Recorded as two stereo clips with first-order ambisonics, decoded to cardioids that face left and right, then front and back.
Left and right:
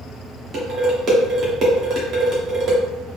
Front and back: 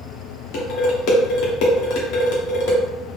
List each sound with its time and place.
0.5 s dishes clattering: 30° right, 1.2 m